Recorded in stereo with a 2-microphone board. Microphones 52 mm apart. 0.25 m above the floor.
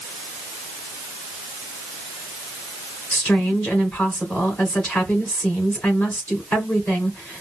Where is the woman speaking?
30° left (ahead or behind), 3 m.